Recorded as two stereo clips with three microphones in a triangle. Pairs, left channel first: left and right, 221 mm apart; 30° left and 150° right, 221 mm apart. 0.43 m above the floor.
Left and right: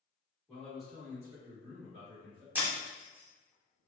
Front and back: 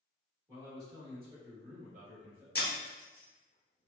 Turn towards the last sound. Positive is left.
turn(degrees=-10)